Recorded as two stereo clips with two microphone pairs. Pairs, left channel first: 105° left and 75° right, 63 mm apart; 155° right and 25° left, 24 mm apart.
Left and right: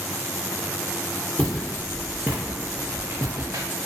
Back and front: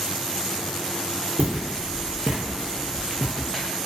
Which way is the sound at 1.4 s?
25° left.